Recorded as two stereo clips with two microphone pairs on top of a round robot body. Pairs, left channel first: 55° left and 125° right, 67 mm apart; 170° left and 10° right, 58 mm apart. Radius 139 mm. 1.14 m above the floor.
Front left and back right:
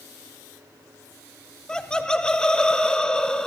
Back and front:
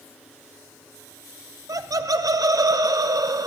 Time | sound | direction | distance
1.7 | laughter | 25° right | 0.6 m